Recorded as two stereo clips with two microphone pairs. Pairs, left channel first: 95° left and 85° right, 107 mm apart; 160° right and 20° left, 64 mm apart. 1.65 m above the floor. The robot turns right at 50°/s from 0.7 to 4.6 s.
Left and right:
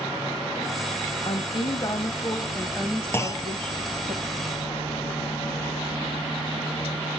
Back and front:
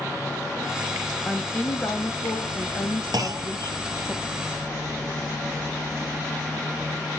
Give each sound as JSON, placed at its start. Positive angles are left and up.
{"t": 1.2, "sound": "a woman speaking", "azimuth_deg": 120, "distance_m": 1.6}
{"t": 3.1, "sound": "a clunk", "azimuth_deg": 25, "distance_m": 0.8}